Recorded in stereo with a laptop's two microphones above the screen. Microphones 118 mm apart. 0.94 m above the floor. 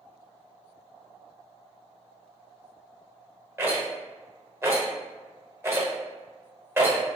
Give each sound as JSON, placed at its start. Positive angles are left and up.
{"t": 3.6, "sound": "a rattle", "side_deg": -20, "distance_m": 0.8}